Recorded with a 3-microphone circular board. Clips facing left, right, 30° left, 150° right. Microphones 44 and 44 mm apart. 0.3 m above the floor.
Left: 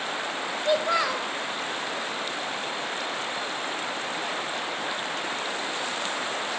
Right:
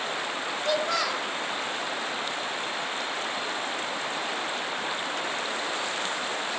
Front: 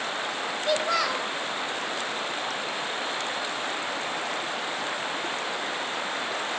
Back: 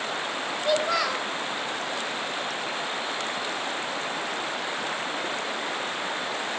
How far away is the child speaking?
About 0.6 m.